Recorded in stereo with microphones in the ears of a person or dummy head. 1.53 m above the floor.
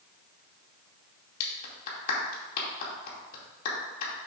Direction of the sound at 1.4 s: 45° left (ahead or behind).